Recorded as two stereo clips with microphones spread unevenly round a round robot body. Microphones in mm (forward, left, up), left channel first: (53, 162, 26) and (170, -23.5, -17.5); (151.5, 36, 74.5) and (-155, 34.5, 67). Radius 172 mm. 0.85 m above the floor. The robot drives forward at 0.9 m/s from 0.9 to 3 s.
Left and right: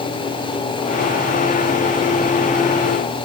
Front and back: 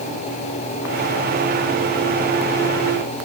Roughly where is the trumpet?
No trumpet in this recording.